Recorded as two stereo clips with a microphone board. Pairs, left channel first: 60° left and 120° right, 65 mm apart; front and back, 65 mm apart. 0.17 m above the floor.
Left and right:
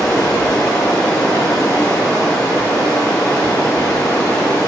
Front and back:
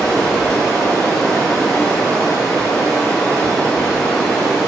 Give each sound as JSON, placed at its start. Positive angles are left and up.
{"t": 0.0, "sound": "running water", "azimuth_deg": 45, "distance_m": 2.0}